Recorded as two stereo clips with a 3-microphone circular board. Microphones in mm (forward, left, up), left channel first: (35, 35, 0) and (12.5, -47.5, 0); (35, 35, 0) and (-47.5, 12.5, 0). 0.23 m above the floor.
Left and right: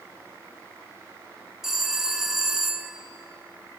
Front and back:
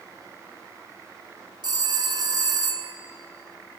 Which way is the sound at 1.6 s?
170° left.